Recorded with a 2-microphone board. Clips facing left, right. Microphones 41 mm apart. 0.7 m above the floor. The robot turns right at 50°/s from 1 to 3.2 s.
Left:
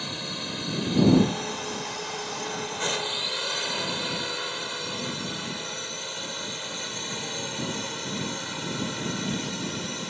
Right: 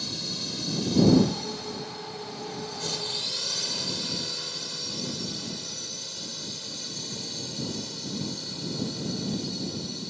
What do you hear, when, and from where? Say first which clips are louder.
0.0 s a drone: left 2 dB; 35° left (ahead or behind); by 10.1 s 50° left (ahead or behind)